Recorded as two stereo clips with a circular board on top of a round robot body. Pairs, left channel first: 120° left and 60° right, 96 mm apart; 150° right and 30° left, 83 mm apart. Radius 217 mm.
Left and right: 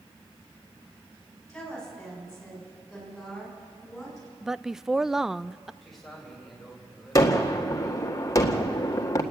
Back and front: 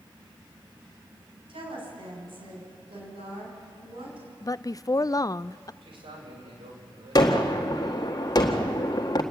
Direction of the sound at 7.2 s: 175° left.